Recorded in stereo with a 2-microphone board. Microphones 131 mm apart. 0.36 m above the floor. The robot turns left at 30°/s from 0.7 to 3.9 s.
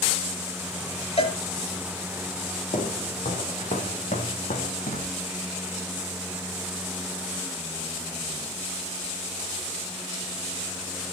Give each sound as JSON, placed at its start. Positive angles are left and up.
{"t": 1.2, "sound": "a cowbell", "side_deg": 55, "distance_m": 3.0}
{"t": 2.7, "sound": "footsteps", "side_deg": 80, "distance_m": 3.5}